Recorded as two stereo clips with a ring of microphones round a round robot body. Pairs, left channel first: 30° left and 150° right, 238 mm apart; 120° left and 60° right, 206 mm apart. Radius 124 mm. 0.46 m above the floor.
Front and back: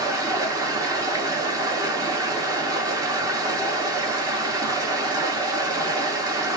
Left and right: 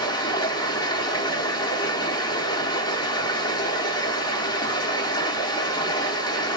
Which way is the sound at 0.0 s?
155° left.